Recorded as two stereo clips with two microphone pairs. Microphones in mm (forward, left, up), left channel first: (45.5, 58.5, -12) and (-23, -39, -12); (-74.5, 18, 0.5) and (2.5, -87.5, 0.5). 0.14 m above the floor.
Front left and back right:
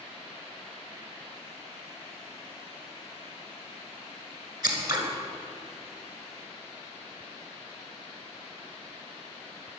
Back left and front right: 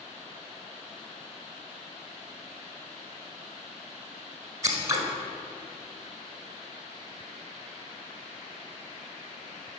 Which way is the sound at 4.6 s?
100° right.